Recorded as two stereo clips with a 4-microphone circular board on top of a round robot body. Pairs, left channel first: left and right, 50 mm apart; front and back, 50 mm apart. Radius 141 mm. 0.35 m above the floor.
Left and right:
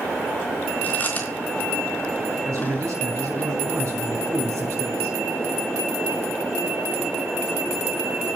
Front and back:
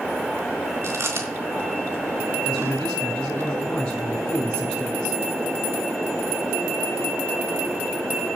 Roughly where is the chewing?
Behind left.